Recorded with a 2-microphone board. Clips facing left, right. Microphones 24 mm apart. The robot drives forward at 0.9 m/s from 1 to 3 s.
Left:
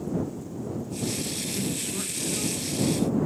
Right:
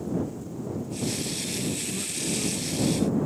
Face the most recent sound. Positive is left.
turn(degrees=75)  # may be behind; listen again after turning